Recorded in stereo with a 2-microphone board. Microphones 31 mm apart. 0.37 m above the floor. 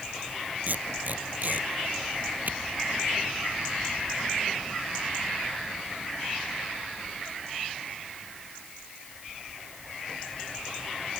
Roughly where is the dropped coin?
I don't hear a dropped coin.